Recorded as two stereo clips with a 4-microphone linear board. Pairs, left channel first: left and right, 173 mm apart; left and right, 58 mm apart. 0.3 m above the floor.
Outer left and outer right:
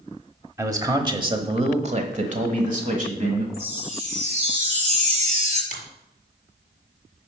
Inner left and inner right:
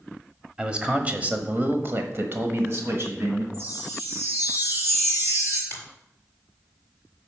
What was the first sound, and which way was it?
A man speaking, 15° right (ahead or behind).